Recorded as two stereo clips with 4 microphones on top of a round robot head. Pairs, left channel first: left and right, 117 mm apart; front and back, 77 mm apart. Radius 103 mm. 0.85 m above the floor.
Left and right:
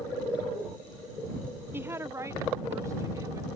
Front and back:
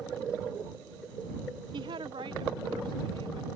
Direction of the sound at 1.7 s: 160° right.